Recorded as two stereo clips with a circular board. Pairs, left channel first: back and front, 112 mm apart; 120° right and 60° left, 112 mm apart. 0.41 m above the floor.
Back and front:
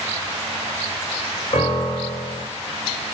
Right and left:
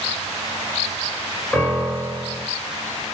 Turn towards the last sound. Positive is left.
turn(degrees=165)